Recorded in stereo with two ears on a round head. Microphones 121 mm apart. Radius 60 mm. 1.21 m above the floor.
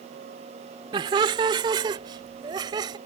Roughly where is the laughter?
Right.